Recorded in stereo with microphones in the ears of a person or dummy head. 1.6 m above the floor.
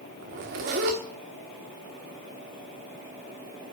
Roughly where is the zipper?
Right.